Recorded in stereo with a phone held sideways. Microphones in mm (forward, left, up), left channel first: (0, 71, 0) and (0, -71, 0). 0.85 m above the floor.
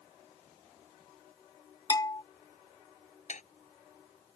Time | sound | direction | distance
1.9 | a bell | 25° left (ahead or behind) | ?
3.3 | dishes clattering | 55° left (ahead or behind) | ?